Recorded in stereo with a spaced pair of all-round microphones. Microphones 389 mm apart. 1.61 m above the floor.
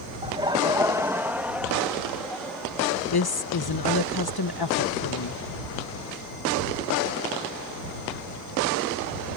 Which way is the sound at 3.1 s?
65° left (ahead or behind).